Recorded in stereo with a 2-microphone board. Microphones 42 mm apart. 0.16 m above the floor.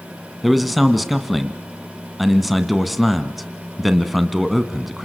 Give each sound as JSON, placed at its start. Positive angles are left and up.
{"t": 0.4, "sound": "a man speaking", "side_deg": -5, "distance_m": 1.4}